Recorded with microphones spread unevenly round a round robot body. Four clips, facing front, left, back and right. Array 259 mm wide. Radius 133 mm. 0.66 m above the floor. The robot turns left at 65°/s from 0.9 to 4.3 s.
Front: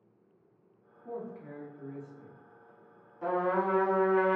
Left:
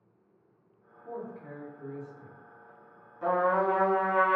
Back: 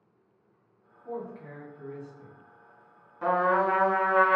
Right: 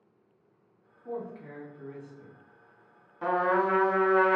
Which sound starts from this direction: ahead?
A man speaking, at 1.1 s.